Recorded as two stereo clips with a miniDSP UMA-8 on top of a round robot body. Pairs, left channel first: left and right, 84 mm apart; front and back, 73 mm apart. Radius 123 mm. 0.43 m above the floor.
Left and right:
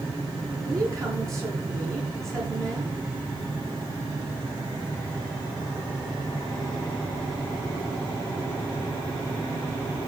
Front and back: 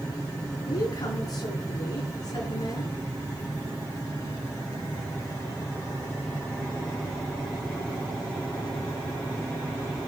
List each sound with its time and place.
0.7 s a woman speaking: 35° right, 8 m